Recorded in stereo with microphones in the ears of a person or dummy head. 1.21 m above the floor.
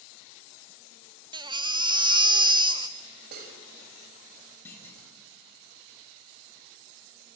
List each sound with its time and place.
1.3 s a baby crying: 20° right (ahead or behind), 0.6 m
3.3 s cutlery clinking: 65° right (ahead or behind), 4 m
4.7 s a clunk: 5° left (ahead or behind), 4.5 m